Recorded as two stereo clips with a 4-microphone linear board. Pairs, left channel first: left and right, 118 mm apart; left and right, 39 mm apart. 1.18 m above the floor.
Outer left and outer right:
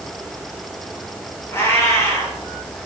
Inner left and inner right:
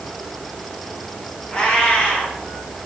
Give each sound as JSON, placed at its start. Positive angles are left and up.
{"t": 1.5, "sound": "a cat meowing", "side_deg": 25, "distance_m": 3.0}